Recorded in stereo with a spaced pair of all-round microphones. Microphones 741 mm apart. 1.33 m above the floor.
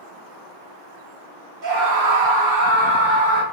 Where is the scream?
80° right, 1.1 m; by 3.4 s 10° left (ahead or behind), 1.5 m.